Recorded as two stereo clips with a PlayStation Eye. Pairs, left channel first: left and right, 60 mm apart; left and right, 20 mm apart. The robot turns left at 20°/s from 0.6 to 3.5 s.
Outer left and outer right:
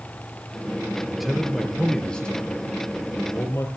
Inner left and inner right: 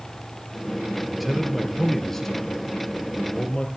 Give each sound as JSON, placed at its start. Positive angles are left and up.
{"t": 1.1, "sound": "a man speaking", "azimuth_deg": -175, "distance_m": 5.0}